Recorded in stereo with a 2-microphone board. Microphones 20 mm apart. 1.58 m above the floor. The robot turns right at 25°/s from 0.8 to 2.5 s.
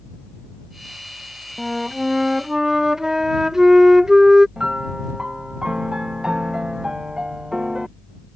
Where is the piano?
50° right (ahead or behind).